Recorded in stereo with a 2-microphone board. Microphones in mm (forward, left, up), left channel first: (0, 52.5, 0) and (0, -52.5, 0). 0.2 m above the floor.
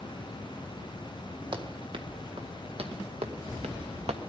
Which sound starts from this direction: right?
Running footsteps, at 1.5 s.